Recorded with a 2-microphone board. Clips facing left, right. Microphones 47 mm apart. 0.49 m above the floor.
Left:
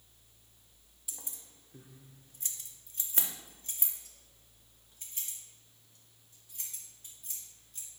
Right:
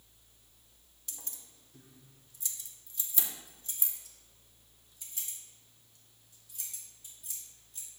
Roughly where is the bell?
No bell in this recording.